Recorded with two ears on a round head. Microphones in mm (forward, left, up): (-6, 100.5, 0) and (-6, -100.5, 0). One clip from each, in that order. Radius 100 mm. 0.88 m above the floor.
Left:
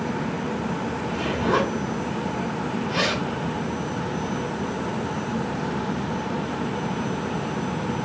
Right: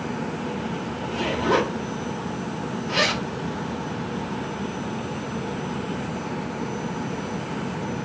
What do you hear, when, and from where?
1.0 s a zipper: 35° right (ahead or behind), 2 m